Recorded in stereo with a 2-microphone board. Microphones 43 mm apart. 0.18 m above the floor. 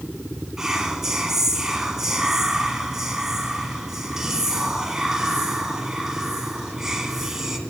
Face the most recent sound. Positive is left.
turn(degrees=-10)  # may be behind; listen again after turning